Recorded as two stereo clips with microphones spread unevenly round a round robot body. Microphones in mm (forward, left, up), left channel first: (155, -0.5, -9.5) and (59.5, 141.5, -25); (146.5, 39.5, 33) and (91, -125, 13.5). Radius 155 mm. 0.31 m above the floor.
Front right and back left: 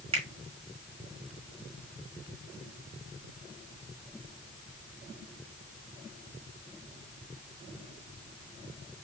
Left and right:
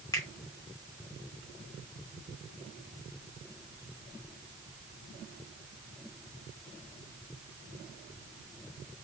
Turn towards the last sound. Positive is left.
turn(degrees=140)